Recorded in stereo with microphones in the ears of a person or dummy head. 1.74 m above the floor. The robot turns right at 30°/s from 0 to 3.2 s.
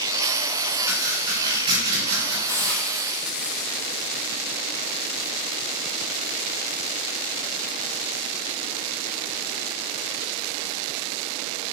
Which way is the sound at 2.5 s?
15° left (ahead or behind).